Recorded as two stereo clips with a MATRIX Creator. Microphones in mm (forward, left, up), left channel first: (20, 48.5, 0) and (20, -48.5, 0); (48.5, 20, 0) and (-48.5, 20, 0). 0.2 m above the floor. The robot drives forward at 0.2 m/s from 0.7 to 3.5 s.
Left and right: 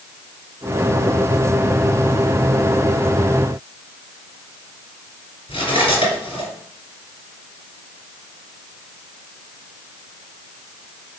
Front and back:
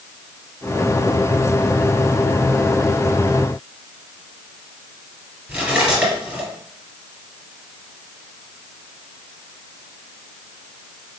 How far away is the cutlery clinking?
About 2 m.